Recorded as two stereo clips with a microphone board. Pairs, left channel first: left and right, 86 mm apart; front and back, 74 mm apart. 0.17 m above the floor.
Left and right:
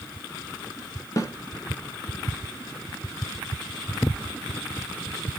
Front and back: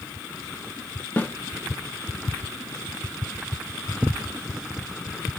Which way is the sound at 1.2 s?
55° left.